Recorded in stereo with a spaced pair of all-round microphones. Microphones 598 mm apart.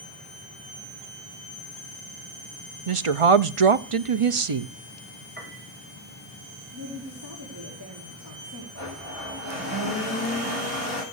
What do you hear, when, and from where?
2.9 s a woman speaking: 60° right (ahead or behind), 0.7 m
5.4 s a piano: 15° right (ahead or behind), 4.5 m
6.7 s a woman speaking: 35° right (ahead or behind), 4 m
8.8 s a blender: 25° right (ahead or behind), 9.5 m